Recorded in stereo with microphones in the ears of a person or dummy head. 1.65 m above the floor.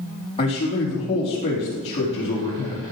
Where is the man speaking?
25° left (ahead or behind), 3.5 m.